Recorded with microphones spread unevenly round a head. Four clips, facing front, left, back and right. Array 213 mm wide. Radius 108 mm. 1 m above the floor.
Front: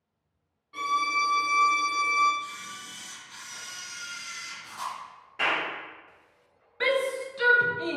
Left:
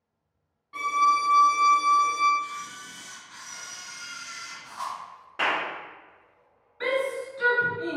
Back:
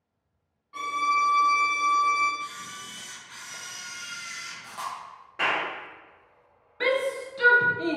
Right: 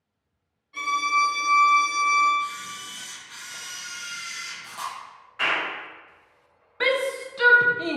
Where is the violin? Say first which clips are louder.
Left 2 dB, back 2 dB; 60° left, 1.4 m.